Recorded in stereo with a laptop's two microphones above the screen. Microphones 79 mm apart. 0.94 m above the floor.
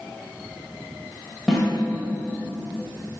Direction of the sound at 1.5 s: Centre (ahead or behind).